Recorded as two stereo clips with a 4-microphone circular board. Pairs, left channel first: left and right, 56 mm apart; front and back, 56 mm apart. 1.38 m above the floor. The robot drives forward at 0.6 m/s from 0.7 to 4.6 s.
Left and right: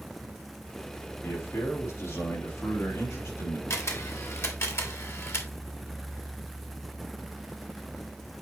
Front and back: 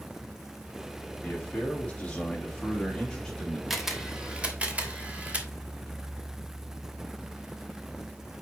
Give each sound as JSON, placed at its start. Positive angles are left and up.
{"t": 1.2, "sound": "a man speaking", "azimuth_deg": 60, "distance_m": 3.5}
{"t": 3.7, "sound": "a camera shutter", "azimuth_deg": 90, "distance_m": 1.3}